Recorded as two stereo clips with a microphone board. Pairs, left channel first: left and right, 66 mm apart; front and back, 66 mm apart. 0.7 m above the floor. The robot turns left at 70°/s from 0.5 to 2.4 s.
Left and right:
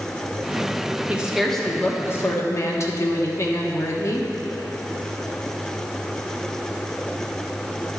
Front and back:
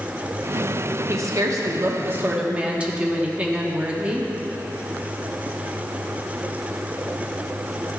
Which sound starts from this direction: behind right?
A woman speaking, at 1.1 s.